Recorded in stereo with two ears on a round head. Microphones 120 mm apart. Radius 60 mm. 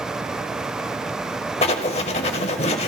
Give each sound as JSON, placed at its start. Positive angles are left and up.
{"t": 1.6, "sound": "writing", "side_deg": 45, "distance_m": 0.9}